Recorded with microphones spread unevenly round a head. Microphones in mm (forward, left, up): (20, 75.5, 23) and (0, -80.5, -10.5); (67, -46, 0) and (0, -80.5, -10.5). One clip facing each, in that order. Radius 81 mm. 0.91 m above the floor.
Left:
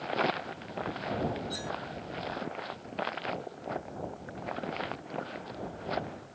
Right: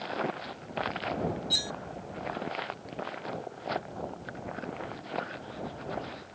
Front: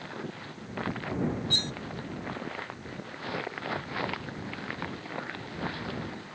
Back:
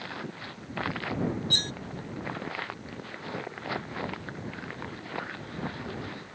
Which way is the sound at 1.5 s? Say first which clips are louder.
Left 1 dB, even; 120° right.